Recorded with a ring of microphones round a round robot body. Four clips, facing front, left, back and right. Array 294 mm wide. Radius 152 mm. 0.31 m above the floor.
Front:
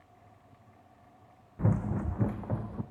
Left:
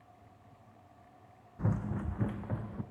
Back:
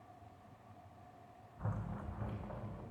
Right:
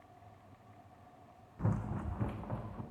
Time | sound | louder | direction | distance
1.6 | running footsteps | left 3 dB, front 14 dB | 10° left | 0.9 m